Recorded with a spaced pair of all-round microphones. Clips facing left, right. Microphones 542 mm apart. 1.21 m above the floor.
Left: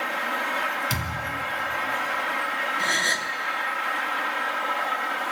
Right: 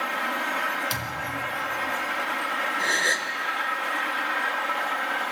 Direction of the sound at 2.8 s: 25° left (ahead or behind).